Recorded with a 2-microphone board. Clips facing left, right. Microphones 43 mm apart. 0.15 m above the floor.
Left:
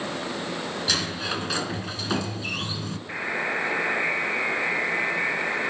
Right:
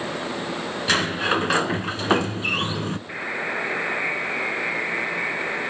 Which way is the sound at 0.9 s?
40° right (ahead or behind).